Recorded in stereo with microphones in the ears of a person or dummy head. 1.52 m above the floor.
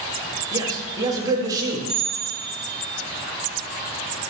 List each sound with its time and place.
0.5 s a man speaking: 20° right (ahead or behind), 1.2 m
1.9 s a bell: centre (ahead or behind), 1.7 m